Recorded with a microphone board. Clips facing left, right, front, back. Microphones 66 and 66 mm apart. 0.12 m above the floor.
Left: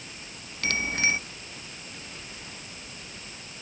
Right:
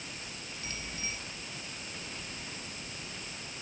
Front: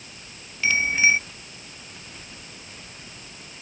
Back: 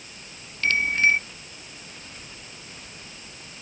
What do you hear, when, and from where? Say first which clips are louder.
0.6 s a bicycle bell: left 15 dB, front 1 dB; 85° left